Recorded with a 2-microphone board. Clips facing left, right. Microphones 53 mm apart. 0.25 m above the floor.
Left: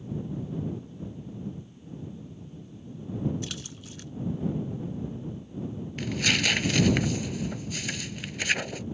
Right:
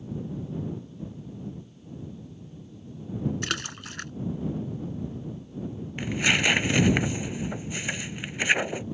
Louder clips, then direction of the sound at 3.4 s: Right 7 dB; 70° right (ahead or behind).